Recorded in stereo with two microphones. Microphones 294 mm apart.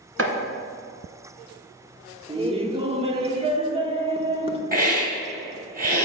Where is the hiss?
30° right (ahead or behind), 2 m.